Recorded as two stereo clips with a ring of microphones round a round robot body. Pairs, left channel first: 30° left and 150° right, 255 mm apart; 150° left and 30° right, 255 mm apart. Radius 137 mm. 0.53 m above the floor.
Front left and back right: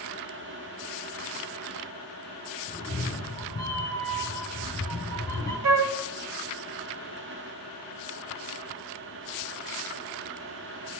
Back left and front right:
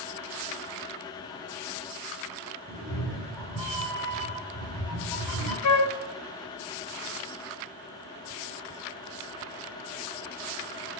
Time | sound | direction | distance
2.7 | a cat meowing | 105° left | 2.5 m
5.6 | a flute | straight behind | 0.9 m